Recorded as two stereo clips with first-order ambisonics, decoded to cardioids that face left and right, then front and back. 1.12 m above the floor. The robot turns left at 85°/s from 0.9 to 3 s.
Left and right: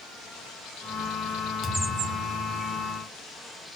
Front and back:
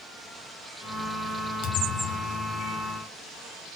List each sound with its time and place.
1.6 s a thud: 15° left, 2.0 m; by 2.8 s 80° right, 2.0 m